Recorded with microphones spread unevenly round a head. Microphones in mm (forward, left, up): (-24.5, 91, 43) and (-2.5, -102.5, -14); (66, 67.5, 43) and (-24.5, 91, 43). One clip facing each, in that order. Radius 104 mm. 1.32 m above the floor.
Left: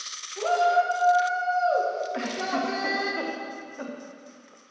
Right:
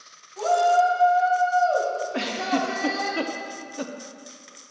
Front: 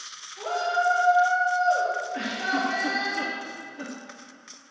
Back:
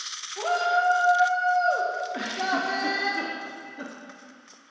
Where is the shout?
165° left, 1.1 m.